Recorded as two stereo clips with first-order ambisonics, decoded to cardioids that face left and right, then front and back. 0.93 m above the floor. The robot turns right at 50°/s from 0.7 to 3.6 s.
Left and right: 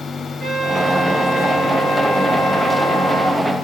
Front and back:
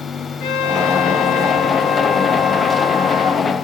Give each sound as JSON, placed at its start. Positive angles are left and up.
{"t": 0.4, "sound": "a trumpet", "azimuth_deg": 5, "distance_m": 2.5}